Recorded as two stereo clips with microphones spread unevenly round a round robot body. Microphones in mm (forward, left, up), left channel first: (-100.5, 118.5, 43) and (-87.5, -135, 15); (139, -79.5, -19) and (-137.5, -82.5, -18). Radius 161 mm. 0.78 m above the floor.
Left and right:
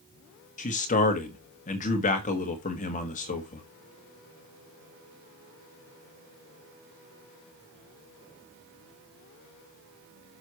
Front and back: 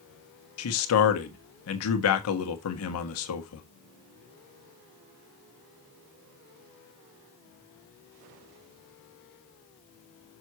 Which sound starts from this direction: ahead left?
A man speaking, at 0.6 s.